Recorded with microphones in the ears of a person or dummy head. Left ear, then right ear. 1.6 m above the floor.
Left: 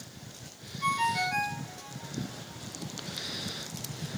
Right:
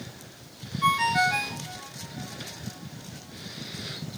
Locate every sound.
0.8 s a ringtone: 5° right (ahead or behind), 1.7 m